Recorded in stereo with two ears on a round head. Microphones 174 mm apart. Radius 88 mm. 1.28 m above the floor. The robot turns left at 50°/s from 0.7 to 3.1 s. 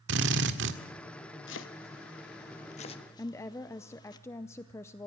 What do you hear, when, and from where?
0.1 s a drill: 65° right (ahead or behind), 1.6 m
1.5 s chopping: 70° left (ahead or behind), 1.2 m; by 4.2 s 20° left (ahead or behind), 1.2 m
3.2 s a woman speaking: 15° left (ahead or behind), 0.6 m